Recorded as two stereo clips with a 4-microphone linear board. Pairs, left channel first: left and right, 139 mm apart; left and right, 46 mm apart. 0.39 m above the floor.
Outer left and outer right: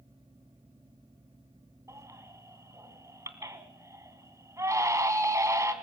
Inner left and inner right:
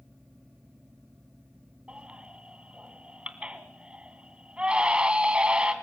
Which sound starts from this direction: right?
A baby crying, at 1.9 s.